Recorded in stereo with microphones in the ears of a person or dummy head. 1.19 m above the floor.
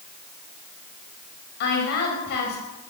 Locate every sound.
1.6 s a woman speaking: 60° left (ahead or behind), 7 m